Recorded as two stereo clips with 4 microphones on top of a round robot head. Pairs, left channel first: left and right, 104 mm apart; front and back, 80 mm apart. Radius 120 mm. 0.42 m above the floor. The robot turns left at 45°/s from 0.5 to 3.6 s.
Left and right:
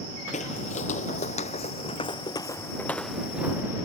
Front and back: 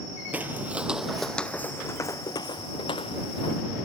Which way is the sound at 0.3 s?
110° left.